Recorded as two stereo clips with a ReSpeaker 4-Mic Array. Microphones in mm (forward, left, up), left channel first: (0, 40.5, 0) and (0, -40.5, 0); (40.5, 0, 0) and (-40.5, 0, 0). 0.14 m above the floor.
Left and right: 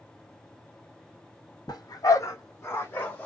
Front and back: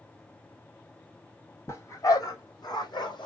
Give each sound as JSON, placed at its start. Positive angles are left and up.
{"t": 1.7, "sound": "a dog barking", "azimuth_deg": 55, "distance_m": 1.2}